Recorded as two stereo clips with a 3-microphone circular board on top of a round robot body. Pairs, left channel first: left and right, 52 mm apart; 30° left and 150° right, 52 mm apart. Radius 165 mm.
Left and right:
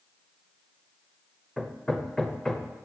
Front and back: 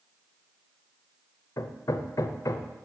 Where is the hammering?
10° left, 0.8 m.